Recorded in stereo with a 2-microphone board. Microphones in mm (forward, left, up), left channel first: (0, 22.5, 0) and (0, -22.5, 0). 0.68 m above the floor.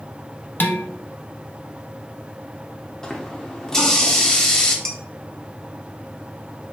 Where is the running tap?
15° left (ahead or behind), 0.7 m.